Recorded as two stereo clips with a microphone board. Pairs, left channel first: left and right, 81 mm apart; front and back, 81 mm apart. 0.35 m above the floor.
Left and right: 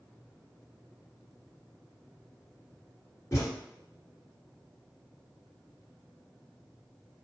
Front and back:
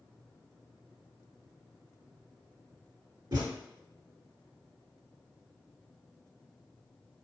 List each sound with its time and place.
3.3 s a thud: 145° left, 1.3 m